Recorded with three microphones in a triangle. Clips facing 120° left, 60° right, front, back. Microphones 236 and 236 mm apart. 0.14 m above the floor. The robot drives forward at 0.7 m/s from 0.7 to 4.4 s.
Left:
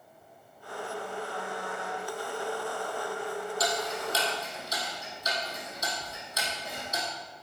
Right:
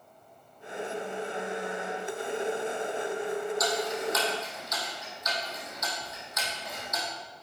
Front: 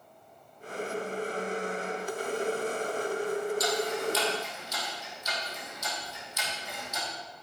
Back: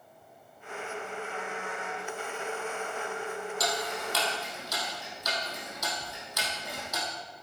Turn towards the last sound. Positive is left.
turn(degrees=175)